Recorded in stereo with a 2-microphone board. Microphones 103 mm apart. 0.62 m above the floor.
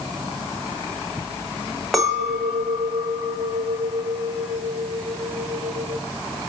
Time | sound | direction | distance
1.9 | a clink | centre (ahead or behind) | 1.7 m